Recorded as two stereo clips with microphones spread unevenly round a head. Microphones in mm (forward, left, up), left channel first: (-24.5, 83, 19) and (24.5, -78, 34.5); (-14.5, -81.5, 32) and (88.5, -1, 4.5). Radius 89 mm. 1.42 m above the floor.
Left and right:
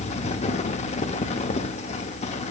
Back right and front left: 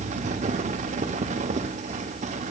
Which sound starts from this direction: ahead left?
A fan, at 0.0 s.